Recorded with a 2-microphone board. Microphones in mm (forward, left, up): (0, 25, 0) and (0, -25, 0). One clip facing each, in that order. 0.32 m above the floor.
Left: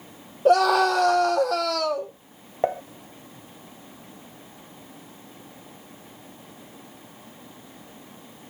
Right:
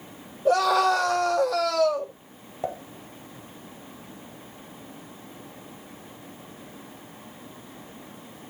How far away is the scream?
About 10 m.